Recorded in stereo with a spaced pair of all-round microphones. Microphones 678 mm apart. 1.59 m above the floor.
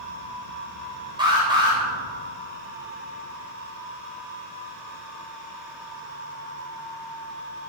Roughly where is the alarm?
Centre.